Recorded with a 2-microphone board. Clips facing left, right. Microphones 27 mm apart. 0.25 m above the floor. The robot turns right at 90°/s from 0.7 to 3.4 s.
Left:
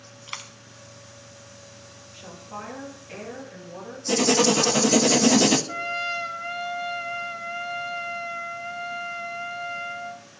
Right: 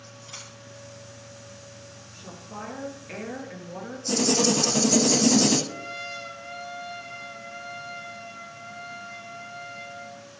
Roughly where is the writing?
Left.